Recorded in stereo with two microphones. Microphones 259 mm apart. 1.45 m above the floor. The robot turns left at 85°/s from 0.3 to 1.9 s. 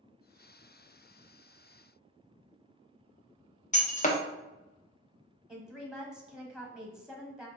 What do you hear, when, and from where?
3.7 s breaking glass: 30° left (ahead or behind), 0.6 m
5.5 s a woman speaking: 5° right (ahead or behind), 0.7 m